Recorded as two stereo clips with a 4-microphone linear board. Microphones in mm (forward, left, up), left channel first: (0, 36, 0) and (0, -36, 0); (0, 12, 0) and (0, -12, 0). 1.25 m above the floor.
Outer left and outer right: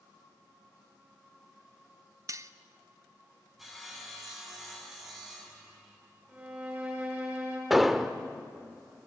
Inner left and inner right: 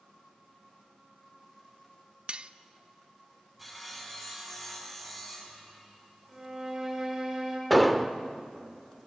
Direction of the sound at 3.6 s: Centre (ahead or behind).